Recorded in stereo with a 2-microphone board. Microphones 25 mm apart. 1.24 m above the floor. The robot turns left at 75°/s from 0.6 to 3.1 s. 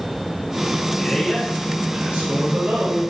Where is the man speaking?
30° left, 4.5 m; by 3.0 s 120° right, 4.5 m.